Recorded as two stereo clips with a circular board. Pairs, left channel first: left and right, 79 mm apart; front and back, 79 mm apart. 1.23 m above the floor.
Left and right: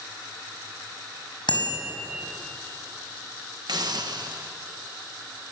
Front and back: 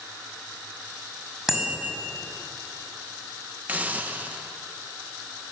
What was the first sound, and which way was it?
A bicycle bell, 95° left.